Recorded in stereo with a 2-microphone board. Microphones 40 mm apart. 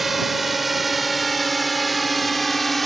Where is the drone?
Centre (ahead or behind); by 2.9 s 5° left (ahead or behind).